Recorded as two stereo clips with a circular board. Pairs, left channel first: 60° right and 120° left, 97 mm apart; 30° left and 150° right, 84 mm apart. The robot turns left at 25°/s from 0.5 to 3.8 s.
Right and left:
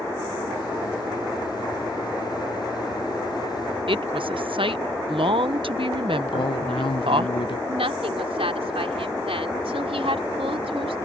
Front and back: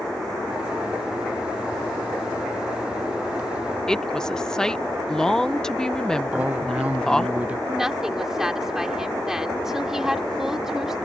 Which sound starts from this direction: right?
A woman speaking, at 6.3 s.